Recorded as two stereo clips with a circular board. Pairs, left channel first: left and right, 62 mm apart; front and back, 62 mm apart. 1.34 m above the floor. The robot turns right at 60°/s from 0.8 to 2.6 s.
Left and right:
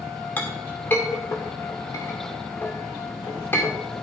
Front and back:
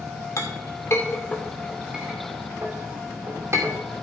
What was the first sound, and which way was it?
A clink, 30° left.